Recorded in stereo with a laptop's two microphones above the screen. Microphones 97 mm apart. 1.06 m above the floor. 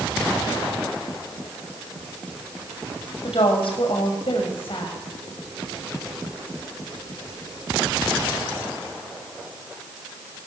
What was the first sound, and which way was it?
A woman speaking, 70° left (ahead or behind).